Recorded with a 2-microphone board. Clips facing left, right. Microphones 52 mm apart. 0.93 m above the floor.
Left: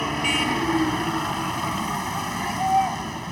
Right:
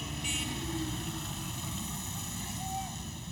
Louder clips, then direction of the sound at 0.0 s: Left 14 dB; 65° left (ahead or behind).